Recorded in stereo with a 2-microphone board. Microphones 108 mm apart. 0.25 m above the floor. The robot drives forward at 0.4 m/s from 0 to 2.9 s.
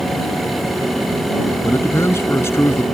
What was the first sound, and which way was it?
A man speaking, 25° left (ahead or behind).